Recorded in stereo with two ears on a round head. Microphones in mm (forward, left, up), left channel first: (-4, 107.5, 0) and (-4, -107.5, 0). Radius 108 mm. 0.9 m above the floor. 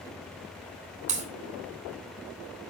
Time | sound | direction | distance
1.1 | a crack | 30° right (ahead or behind) | 3.5 m